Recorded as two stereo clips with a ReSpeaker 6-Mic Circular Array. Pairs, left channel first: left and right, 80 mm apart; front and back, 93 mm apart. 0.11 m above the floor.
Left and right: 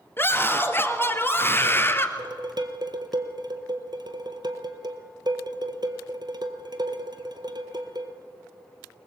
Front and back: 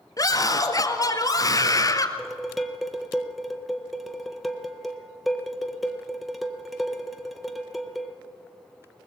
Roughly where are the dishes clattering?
Right.